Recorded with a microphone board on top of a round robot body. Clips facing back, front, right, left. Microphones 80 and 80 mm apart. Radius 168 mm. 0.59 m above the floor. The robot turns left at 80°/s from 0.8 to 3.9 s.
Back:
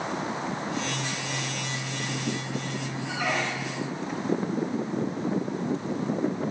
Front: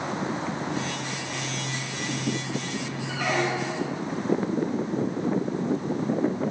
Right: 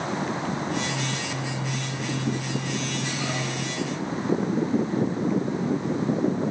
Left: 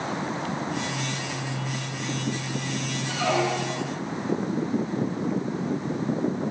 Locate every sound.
3.1 s a squeak: 105° left, 0.7 m; by 4.0 s 40° left, 0.7 m